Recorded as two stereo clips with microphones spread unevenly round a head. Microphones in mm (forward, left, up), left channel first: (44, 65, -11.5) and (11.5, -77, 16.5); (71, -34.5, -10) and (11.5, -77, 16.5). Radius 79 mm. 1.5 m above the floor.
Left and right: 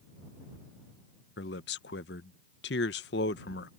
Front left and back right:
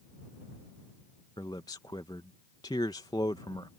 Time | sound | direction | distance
1.4 | a man speaking | 105° left | ?